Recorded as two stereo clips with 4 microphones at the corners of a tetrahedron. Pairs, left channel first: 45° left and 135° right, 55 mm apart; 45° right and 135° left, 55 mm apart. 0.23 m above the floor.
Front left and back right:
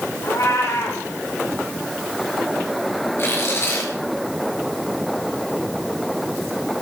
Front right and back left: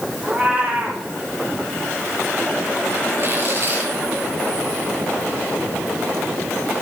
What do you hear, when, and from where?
0.2 s a cat meowing: 70° left, 4.5 m
3.2 s tearing paper: 90° left, 5 m